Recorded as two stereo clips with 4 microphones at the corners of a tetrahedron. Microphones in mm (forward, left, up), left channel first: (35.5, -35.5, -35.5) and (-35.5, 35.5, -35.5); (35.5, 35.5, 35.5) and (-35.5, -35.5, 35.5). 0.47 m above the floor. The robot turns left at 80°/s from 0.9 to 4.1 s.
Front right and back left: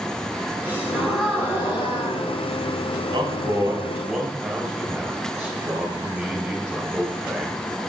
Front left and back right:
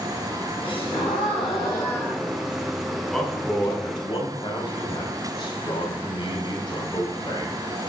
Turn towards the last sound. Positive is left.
turn(degrees=65)